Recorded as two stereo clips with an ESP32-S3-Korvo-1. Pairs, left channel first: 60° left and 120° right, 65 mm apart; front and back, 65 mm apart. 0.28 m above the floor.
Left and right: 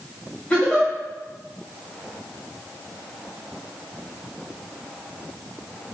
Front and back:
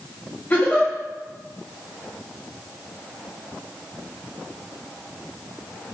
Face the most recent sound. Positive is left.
turn(degrees=10)